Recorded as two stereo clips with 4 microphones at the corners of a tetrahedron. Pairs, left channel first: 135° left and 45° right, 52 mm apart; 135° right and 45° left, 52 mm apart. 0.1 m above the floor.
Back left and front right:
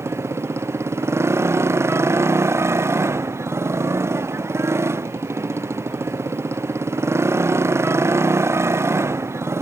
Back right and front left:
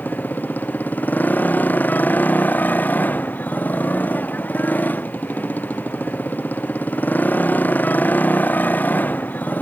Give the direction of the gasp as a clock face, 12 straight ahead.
No gasp in this recording.